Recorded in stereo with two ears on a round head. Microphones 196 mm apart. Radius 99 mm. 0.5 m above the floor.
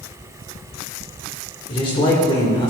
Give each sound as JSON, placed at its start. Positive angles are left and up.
{"t": 1.7, "sound": "a man speaking", "side_deg": 25, "distance_m": 1.7}